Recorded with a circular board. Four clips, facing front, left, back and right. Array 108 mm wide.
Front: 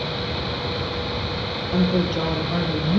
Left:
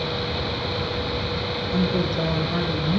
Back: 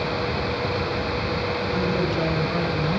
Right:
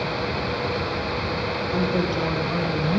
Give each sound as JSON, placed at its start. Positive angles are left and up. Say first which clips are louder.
{"t": 1.7, "sound": "a woman speaking", "louder": "even, front 5 dB", "azimuth_deg": -5, "distance_m": 3.5}